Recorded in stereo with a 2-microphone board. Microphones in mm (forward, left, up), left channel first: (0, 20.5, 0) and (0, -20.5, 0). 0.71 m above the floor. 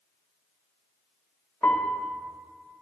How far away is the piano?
About 1.0 m.